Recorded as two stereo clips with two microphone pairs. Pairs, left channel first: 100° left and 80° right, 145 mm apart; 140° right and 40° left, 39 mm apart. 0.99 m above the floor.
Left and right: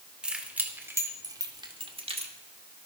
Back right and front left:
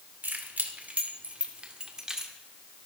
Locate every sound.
0.2 s keys jangling: 5° left, 2 m; by 2.3 s 35° right, 1.8 m